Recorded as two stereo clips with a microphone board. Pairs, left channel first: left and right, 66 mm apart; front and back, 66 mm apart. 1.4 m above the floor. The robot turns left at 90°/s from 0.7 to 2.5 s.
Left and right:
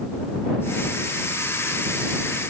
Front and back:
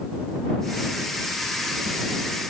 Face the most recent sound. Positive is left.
No sound to turn to.